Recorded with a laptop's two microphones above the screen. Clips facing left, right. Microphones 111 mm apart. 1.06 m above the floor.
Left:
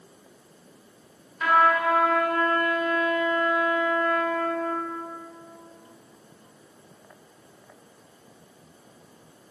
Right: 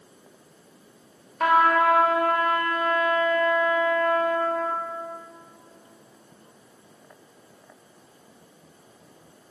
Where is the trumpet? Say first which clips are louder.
Right 2 dB; 60° right (ahead or behind), 1.7 m.